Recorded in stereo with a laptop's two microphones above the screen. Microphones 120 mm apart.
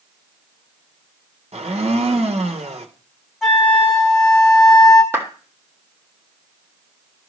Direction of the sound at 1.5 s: 60° right (ahead or behind).